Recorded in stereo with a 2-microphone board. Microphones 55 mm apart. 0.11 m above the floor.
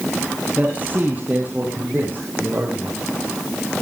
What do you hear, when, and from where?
0.6 s a man speaking: 30° right (ahead or behind), 2.5 m; by 3.0 s 35° right (ahead or behind), 5.5 m